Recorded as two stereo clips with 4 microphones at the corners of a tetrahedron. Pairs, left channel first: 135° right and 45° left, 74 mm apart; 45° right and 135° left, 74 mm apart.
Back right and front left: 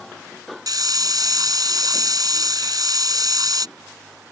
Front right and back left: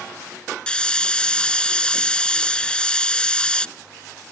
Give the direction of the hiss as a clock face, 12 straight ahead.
11 o'clock.